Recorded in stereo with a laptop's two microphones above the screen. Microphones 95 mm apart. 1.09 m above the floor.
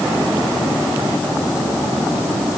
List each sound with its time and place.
Only background noise.